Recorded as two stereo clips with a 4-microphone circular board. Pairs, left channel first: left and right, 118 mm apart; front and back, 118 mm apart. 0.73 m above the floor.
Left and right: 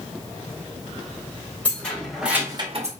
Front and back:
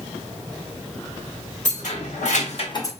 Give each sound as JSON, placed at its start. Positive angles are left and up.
{"t": 1.6, "sound": "keys jangling", "azimuth_deg": 15, "distance_m": 1.3}